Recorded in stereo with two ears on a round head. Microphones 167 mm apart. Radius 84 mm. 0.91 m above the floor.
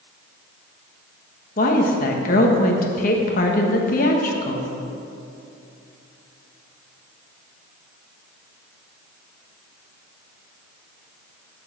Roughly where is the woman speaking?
Left.